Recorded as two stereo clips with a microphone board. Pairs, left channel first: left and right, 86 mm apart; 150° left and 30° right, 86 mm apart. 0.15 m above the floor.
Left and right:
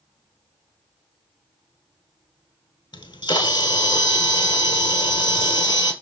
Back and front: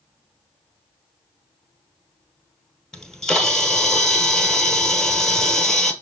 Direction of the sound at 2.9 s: 65° left.